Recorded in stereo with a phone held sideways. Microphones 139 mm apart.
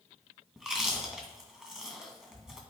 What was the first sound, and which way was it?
Chewing, 5° right (ahead or behind).